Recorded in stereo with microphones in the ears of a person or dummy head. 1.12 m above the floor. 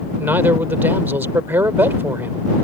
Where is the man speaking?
15° right (ahead or behind).